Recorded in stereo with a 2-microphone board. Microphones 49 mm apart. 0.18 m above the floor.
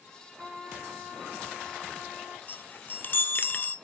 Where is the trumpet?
45° right (ahead or behind), 7 m.